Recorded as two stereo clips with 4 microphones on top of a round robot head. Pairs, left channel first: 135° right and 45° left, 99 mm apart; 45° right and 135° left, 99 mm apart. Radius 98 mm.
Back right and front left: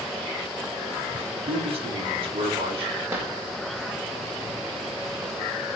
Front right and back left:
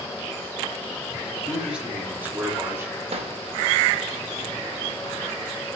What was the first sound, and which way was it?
A man speaking, 55° left.